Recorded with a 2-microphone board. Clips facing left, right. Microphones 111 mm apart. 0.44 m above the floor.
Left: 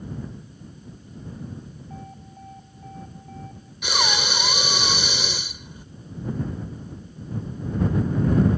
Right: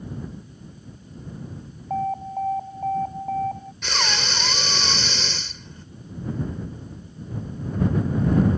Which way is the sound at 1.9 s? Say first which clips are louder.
Right 20 dB; 60° right (ahead or behind).